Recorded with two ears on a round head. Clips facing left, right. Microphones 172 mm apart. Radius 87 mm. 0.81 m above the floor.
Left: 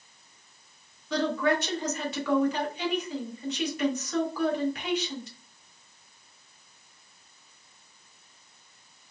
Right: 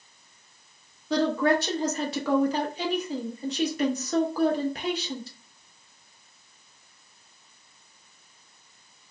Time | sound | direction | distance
1.1 | a woman speaking | 30° right (ahead or behind) | 0.6 m